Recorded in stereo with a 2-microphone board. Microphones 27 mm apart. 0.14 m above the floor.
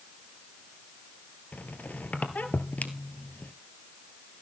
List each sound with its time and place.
1.5 s a squeak: 70° left (ahead or behind), 1.6 m